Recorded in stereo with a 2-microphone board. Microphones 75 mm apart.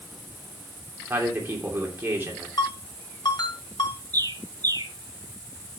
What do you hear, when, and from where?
1.1 s a man speaking: 30° right (ahead or behind), 3 m
2.6 s a ringtone: 75° left (ahead or behind), 3 m
4.1 s a bird: 60° right (ahead or behind), 1.3 m